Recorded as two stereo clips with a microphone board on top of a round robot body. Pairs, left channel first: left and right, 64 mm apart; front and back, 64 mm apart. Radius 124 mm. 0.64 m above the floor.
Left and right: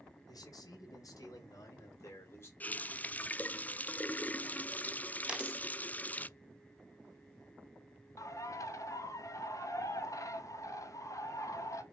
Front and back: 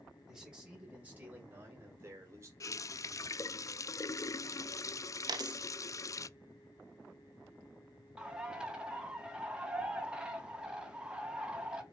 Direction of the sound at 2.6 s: 25° left.